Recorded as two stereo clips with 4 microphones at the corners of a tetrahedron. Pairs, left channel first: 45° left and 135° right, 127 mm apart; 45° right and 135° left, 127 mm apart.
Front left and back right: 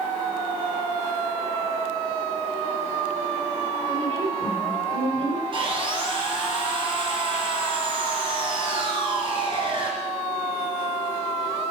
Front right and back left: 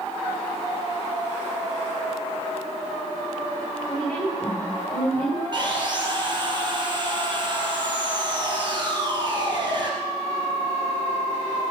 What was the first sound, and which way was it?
A woman speaking, 130° right.